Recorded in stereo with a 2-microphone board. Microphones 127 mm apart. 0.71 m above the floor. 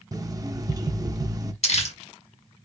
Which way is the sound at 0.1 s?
30° right (ahead or behind).